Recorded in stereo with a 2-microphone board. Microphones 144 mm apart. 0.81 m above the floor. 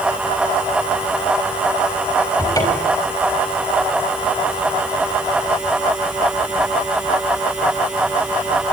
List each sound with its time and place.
2.4 s a cupboard door: 25° left (ahead or behind), 4.5 m